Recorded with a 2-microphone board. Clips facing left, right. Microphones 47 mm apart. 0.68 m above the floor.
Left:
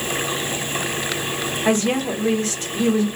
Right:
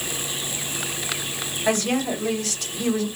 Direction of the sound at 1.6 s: 40° left (ahead or behind).